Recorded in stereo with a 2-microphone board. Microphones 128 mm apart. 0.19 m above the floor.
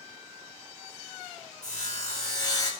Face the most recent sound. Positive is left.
turn(degrees=30)  # may be behind; listen again after turning